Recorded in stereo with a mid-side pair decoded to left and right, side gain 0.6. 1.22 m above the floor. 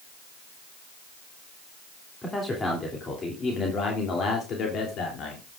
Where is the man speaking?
20° left, 3 m; by 5.5 s 60° left, 3 m.